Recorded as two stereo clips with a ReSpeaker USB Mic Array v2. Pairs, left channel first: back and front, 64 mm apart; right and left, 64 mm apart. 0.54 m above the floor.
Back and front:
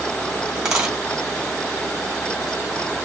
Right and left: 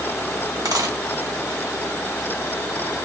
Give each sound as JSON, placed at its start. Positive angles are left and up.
{"t": 0.7, "sound": "a dropped coin", "azimuth_deg": 75, "distance_m": 1.5}